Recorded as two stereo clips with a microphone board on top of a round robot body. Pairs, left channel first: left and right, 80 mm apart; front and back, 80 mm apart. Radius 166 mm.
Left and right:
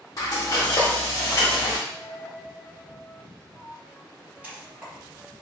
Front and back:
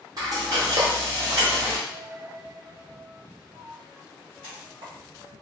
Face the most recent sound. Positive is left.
turn(degrees=-165)